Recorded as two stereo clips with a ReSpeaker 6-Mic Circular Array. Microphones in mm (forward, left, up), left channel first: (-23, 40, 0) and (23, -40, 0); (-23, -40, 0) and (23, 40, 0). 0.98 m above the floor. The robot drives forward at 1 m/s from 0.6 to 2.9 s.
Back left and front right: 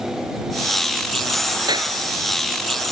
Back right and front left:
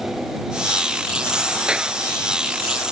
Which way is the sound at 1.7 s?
20° right.